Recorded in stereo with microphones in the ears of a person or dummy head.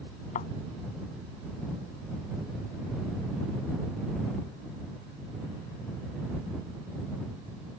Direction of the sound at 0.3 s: 40° left (ahead or behind).